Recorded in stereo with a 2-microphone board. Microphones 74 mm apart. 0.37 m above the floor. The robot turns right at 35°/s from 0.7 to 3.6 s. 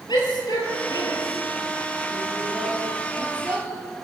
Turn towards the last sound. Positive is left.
turn(degrees=-30)  # may be behind; listen again after turning